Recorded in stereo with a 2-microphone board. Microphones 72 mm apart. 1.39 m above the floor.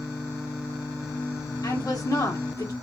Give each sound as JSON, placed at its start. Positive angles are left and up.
{"t": 1.6, "sound": "a woman speaking", "side_deg": 55, "distance_m": 1.6}